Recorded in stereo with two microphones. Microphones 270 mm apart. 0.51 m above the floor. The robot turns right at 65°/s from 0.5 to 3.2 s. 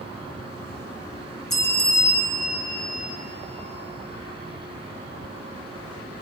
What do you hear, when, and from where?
1.5 s a bell: 120° left, 0.8 m; by 3.2 s 135° right, 0.8 m